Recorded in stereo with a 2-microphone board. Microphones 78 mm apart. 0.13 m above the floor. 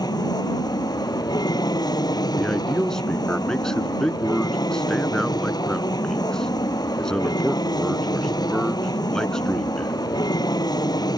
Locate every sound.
0.0 s an aircraft: 60° left (ahead or behind)
2.4 s a man speaking: 5° left (ahead or behind)